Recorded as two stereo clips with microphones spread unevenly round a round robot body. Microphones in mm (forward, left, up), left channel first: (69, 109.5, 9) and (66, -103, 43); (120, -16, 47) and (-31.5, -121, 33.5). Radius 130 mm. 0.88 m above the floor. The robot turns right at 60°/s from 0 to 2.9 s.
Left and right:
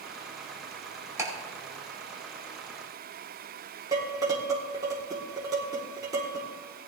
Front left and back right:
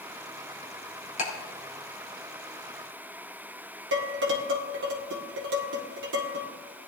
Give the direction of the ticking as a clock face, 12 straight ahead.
12 o'clock.